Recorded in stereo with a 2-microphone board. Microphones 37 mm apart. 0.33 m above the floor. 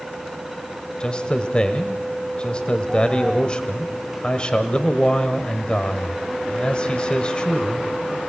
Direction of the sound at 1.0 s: 30° left (ahead or behind).